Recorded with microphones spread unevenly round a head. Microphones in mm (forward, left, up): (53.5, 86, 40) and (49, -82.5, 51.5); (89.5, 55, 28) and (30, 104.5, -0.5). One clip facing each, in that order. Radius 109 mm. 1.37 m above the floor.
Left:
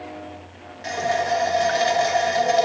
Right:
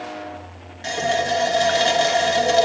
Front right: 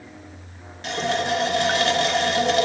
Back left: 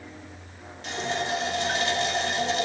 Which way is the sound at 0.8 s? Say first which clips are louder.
Right 1 dB, front right 5 dB; 35° right.